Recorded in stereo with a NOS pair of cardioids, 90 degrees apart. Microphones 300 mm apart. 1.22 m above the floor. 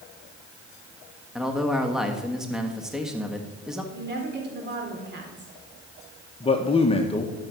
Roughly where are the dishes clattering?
No dishes clattering in this recording.